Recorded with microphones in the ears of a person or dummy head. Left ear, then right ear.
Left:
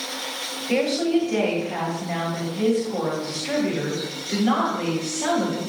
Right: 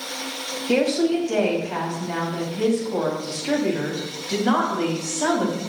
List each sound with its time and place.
0.7 s a woman speaking: 45° right (ahead or behind), 4.5 m